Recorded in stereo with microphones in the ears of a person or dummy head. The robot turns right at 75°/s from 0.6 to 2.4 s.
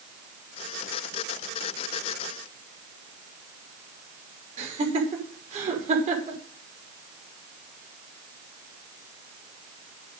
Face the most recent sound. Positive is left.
turn(degrees=-40)  # may be behind; listen again after turning